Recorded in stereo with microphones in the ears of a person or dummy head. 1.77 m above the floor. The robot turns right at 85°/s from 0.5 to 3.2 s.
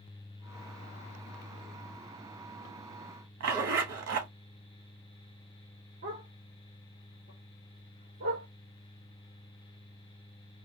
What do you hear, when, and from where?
3.4 s a zipper: 75° right (ahead or behind), 1.3 m
6.0 s a dog barking: 50° right (ahead or behind), 2.0 m